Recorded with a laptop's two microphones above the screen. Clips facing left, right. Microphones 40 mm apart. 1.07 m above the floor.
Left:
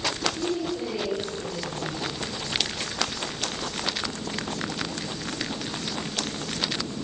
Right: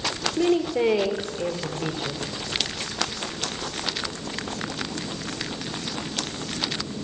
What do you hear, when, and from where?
0.4 s a woman speaking: 80° right, 3 m; by 2.2 s 85° right, 4 m